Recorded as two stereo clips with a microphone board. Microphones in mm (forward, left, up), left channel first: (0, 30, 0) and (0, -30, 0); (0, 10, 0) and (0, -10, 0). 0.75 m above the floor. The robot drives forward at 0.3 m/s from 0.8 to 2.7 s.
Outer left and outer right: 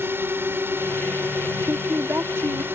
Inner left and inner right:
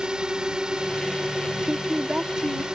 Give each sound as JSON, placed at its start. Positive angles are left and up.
{"t": 0.0, "sound": "a drone", "side_deg": -40}
{"t": 1.6, "sound": "a woman speaking", "side_deg": -50}